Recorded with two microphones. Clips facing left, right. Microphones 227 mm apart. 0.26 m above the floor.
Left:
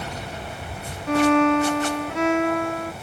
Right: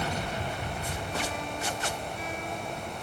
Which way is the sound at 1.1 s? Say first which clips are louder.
Left 22 dB; 80° left.